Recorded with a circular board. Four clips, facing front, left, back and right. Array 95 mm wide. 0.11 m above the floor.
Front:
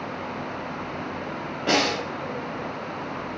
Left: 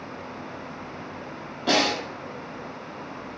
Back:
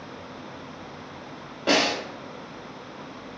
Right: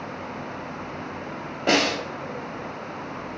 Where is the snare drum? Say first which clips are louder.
Right 1 dB, even; 75° right, 1.5 m.